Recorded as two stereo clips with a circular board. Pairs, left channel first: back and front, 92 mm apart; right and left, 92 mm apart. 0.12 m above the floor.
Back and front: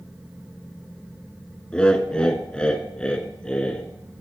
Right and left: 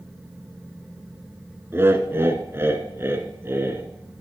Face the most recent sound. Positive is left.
turn(degrees=110)